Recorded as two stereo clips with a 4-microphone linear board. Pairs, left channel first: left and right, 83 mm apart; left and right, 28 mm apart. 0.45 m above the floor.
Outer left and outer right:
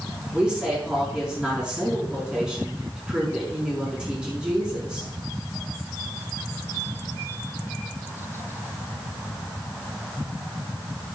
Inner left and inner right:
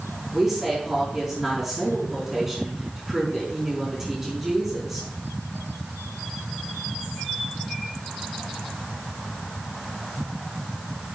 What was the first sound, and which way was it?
A woman speaking, 10° right (ahead or behind).